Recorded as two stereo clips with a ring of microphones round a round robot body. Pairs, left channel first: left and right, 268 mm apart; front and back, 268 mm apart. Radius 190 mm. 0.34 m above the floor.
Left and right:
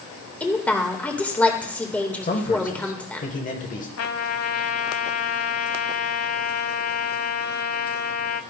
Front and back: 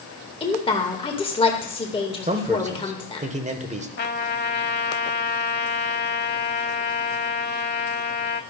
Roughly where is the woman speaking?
Ahead.